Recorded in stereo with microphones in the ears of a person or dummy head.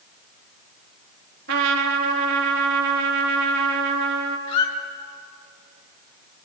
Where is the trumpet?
55° right (ahead or behind), 3.5 m.